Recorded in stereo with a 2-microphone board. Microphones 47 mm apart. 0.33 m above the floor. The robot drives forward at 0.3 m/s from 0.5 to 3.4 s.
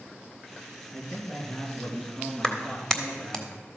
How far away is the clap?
About 1.2 m.